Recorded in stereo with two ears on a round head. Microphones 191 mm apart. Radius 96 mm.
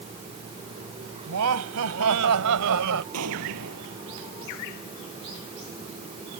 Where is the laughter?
80° right.